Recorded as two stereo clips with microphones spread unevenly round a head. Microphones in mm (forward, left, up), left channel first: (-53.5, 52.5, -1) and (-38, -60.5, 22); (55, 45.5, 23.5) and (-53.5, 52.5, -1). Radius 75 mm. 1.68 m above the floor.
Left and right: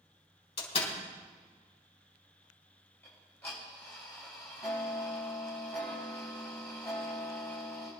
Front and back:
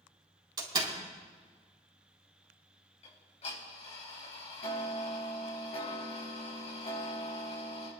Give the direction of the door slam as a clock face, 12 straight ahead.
8 o'clock.